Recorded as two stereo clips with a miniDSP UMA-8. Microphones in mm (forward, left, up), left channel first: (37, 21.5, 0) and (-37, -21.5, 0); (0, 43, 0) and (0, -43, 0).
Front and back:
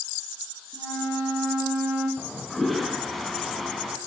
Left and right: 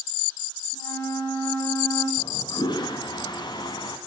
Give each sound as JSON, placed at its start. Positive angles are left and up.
{"t": 0.7, "sound": "a flute", "azimuth_deg": 120, "distance_m": 9.5}
{"t": 2.2, "sound": "a toilet flushing", "azimuth_deg": 120, "distance_m": 2.0}